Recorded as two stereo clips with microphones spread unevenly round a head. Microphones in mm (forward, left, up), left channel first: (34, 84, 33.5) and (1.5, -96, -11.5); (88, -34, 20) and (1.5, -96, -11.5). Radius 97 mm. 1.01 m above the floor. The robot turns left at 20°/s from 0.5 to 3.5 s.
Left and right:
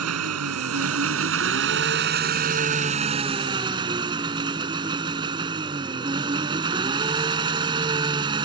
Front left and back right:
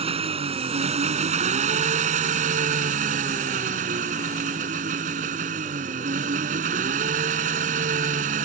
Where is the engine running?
115° right; by 8.4 s 175° right.